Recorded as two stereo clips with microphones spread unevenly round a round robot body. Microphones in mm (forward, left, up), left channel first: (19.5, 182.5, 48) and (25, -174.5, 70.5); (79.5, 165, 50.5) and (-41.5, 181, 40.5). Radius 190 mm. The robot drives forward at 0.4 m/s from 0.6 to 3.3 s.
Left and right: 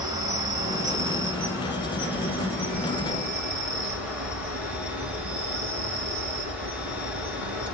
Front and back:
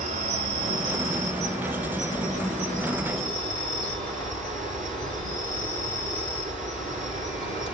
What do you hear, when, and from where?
0.0 s an insect: 170° right, 0.9 m; by 7.7 s 175° right, 1.9 m